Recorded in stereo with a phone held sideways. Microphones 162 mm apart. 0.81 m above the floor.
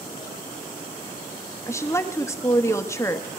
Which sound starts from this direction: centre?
A woman speaking, at 1.7 s.